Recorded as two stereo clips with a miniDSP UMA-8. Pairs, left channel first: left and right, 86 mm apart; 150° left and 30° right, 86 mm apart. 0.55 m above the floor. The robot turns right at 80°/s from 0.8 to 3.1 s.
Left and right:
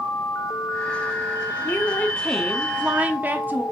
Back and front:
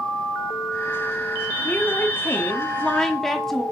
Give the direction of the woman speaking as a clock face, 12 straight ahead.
8 o'clock.